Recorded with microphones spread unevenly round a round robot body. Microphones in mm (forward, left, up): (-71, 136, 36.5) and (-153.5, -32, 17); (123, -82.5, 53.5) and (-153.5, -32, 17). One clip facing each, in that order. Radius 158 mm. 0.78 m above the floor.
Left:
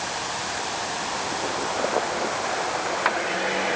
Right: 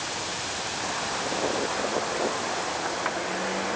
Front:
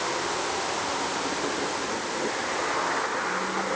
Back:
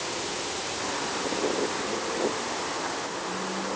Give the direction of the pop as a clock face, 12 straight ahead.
I don't hear a pop.